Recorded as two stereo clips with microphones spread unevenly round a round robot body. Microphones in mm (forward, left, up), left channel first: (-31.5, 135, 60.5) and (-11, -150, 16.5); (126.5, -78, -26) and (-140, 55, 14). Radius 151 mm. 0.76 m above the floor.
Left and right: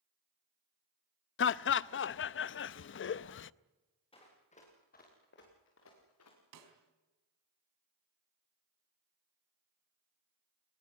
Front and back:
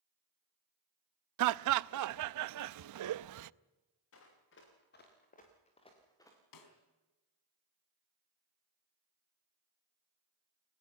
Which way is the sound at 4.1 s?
25° left.